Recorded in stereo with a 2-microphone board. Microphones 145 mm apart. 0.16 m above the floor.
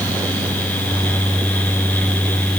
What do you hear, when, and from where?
Only background noise.